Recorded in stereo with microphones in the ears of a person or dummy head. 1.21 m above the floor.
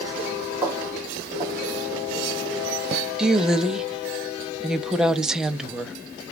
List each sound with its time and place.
0.6 s footsteps: 15° right (ahead or behind), 1.7 m; by 3.0 s 35° right (ahead or behind), 1.4 m
3.2 s a woman speaking: centre (ahead or behind), 0.5 m